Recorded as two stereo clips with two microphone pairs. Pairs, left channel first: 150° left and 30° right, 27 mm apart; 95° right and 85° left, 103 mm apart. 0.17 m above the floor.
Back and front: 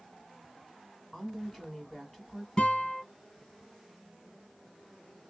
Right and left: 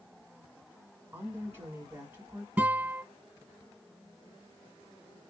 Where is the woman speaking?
55° left, 1.6 m.